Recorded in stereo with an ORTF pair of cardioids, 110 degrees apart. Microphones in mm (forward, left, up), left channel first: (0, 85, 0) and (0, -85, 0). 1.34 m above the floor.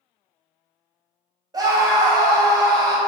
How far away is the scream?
About 1.0 m.